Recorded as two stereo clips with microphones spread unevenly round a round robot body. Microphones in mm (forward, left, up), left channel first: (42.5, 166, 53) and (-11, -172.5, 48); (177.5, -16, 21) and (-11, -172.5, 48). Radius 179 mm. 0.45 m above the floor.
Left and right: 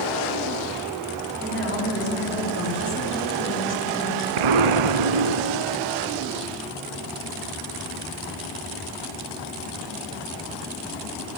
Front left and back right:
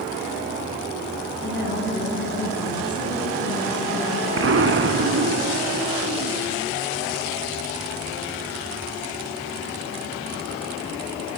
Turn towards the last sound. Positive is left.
turn(degrees=-105)